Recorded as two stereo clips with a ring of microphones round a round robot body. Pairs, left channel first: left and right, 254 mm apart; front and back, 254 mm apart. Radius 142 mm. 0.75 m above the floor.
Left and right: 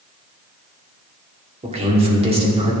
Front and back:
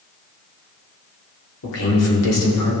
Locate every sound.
1.6 s a man speaking: 25° right, 2.5 m